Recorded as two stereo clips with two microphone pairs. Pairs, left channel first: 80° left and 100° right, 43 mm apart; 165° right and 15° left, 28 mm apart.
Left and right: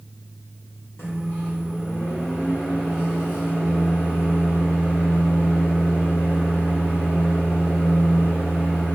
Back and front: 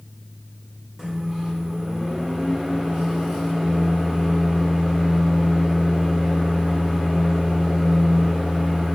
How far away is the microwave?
About 1.2 m.